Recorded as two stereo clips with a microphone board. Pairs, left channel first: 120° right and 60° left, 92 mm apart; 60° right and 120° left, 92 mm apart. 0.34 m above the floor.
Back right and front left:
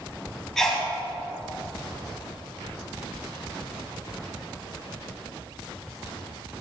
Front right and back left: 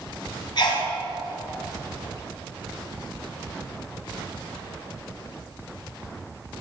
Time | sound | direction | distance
0.6 | a sneeze | 35° right | 2.5 m